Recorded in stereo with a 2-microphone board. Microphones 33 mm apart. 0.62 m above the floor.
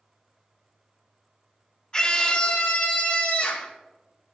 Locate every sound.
1.9 s a scream: 30° left (ahead or behind), 1.2 m; by 3.7 s 55° left (ahead or behind), 2 m